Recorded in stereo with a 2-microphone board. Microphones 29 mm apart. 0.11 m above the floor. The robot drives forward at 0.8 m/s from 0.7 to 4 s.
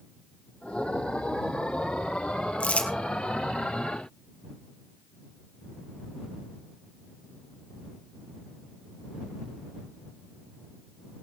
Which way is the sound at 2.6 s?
50° left (ahead or behind).